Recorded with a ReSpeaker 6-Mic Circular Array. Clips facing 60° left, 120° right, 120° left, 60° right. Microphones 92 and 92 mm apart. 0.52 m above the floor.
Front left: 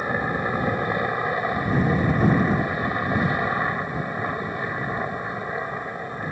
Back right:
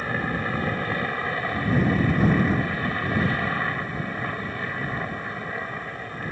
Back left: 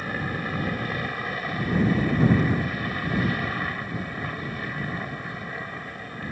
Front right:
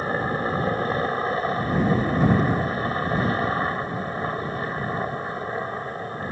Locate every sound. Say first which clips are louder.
0.0 s a helicopter: front left 3 dB, front right 5 dB; 10° right